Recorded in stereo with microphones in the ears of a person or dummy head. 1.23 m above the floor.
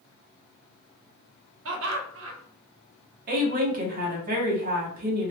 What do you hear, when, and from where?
1.6 s laughter: 75° right (ahead or behind), 0.8 m
3.3 s a woman speaking: 50° right (ahead or behind), 1.0 m